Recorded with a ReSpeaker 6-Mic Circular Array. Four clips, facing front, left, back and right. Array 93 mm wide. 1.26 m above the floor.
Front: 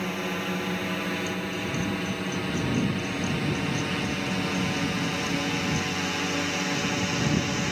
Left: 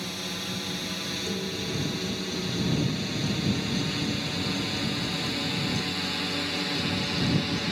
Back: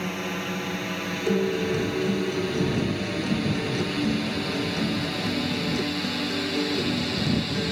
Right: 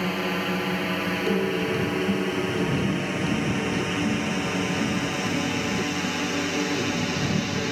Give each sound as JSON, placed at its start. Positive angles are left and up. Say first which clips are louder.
{"t": 0.0, "sound": "a drone", "louder": "right 10 dB, even", "azimuth_deg": -90}
{"t": 1.3, "sound": "a guitar", "louder": "right 9 dB, back 7 dB", "azimuth_deg": -145}